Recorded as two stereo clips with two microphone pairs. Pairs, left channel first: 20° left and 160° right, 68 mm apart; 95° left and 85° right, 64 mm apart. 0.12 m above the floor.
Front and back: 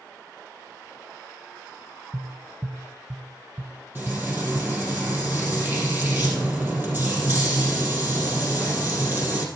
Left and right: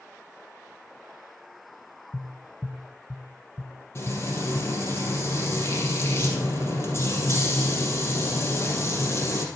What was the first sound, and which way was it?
Tapping, 150° left.